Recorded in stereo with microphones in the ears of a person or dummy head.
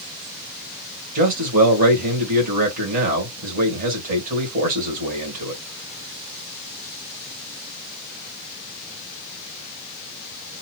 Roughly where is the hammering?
I don't hear hammering.